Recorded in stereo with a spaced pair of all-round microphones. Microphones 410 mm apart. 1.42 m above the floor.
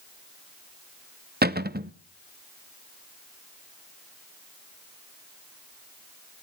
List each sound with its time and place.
1.4 s a cupboard door: 25° right (ahead or behind), 0.6 m